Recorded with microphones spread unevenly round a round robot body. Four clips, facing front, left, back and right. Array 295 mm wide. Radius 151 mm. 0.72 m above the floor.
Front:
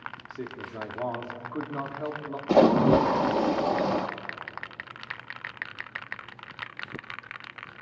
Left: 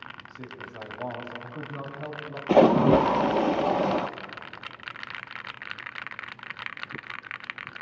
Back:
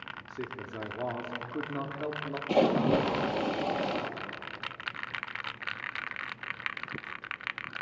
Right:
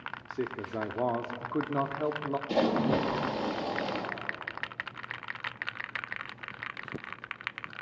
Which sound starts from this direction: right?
A man speaking, at 0.3 s.